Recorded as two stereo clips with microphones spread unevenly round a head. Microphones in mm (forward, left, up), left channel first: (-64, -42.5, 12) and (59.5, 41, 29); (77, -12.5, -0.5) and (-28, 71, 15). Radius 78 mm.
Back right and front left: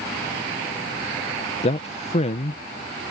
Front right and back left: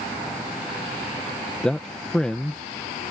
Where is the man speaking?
120° right.